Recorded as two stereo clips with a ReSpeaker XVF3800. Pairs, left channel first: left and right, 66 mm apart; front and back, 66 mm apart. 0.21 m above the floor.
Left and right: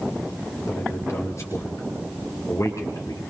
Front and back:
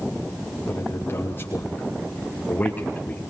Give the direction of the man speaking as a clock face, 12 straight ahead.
10 o'clock.